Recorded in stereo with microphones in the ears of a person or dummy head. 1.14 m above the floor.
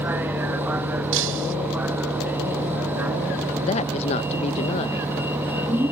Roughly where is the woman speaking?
Left.